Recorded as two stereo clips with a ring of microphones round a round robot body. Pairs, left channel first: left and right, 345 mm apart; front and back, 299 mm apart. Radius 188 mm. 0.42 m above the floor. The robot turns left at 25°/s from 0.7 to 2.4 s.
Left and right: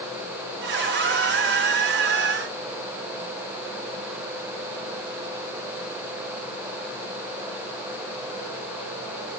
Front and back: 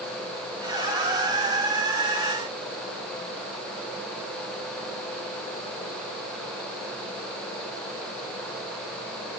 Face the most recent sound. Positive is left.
No sound to turn to.